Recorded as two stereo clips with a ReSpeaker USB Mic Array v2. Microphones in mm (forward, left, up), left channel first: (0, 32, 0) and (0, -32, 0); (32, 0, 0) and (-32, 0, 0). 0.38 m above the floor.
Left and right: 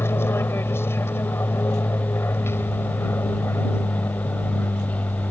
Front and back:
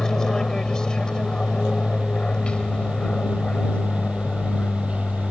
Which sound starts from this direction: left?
An aircraft, at 0.0 s.